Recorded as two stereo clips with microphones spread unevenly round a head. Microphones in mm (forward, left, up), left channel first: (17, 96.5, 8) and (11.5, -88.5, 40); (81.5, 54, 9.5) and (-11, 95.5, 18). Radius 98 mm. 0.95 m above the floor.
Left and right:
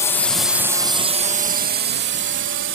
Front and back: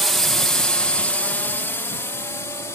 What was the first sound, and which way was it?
A drone, 60° left.